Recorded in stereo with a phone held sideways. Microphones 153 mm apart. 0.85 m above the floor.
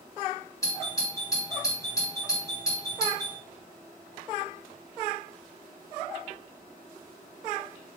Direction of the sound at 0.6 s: 20° left (ahead or behind).